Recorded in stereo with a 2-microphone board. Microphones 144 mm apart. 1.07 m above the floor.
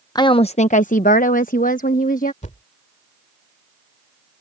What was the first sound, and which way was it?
A woman speaking, 25° left (ahead or behind).